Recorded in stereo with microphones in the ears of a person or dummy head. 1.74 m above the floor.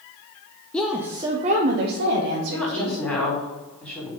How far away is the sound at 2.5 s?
About 3.5 m.